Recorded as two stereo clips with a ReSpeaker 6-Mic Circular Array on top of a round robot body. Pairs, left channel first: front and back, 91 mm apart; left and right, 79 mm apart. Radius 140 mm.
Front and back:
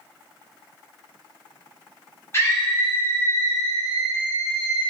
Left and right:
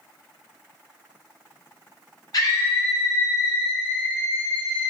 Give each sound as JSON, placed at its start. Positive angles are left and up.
{"t": 2.3, "sound": "a scream", "azimuth_deg": 60, "distance_m": 2.0}